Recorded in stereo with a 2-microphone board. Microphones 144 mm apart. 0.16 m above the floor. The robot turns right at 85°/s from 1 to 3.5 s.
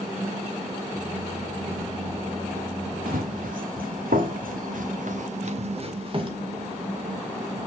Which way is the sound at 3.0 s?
75° right (ahead or behind).